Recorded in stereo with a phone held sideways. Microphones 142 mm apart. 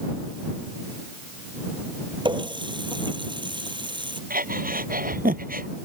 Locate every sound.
2.2 s a running tap: 30° right (ahead or behind)
4.3 s breathing: 70° right (ahead or behind)